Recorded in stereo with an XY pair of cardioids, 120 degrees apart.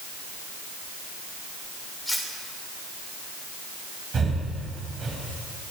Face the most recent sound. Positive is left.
turn(degrees=-40)